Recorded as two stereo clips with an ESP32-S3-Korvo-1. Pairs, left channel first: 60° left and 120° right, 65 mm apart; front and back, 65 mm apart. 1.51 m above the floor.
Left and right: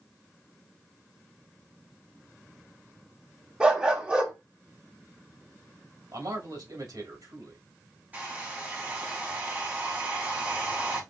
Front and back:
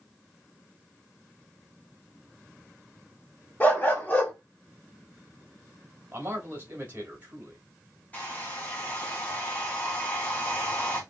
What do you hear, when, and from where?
3.6 s a dog barking: 55° right, 1.4 m
6.1 s a man speaking: 120° right, 2.5 m
8.1 s a hair dryer: 60° right, 1.7 m